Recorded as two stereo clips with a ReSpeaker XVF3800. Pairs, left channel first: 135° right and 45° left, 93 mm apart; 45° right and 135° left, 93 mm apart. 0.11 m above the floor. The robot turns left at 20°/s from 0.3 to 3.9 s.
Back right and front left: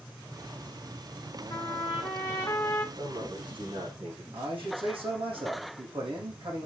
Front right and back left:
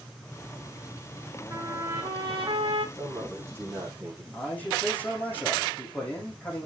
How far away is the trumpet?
About 2 m.